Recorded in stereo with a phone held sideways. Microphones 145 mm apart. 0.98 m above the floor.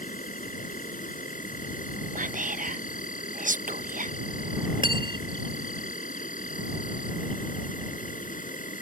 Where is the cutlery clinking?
35° right (ahead or behind).